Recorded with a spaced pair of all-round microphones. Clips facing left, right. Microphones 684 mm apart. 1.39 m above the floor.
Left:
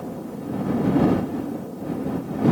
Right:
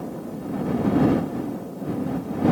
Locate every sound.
Only background noise.